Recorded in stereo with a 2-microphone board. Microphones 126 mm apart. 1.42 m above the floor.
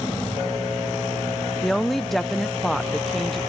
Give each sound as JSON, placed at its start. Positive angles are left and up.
{"t": 1.6, "sound": "a woman speaking", "side_deg": 0}